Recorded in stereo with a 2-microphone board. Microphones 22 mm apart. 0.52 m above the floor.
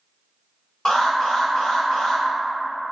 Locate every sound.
0.8 s an alarm: 55° left (ahead or behind), 1.2 m